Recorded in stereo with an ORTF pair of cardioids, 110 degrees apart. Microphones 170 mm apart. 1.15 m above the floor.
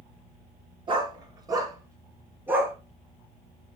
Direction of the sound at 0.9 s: 30° right.